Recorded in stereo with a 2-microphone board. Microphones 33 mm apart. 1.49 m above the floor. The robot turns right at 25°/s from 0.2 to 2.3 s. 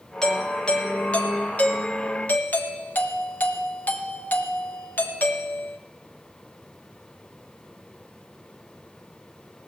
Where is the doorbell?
20° left, 1.2 m; by 5.8 s 75° left, 1.2 m.